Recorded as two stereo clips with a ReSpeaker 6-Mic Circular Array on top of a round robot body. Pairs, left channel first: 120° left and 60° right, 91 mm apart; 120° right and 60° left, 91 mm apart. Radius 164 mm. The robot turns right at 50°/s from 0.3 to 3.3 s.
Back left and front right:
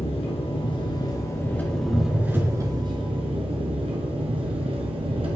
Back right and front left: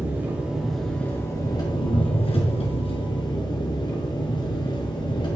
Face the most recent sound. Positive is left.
turn(degrees=-80)